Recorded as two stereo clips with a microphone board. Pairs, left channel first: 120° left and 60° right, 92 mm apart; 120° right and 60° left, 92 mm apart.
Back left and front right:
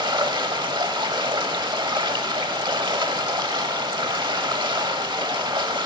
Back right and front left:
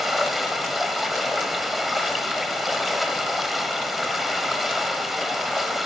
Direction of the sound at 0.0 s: 30° right.